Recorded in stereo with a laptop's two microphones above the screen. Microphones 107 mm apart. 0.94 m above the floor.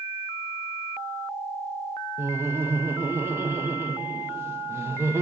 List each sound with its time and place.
2.2 s laughter: 25° right (ahead or behind), 0.8 m